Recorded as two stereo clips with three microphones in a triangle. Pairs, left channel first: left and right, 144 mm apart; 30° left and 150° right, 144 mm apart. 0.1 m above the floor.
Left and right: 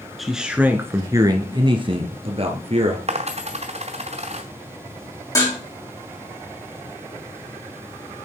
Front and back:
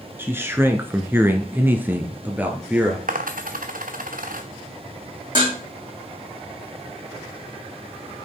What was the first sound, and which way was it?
A man speaking, straight behind.